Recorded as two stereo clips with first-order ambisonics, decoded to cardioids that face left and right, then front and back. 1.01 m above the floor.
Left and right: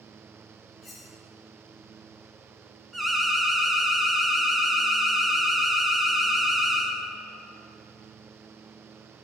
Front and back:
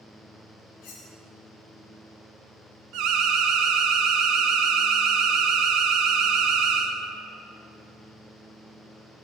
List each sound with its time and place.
0.8 s cutlery clinking: 15° left, 1.6 m
2.9 s an alarm: 170° right, 0.9 m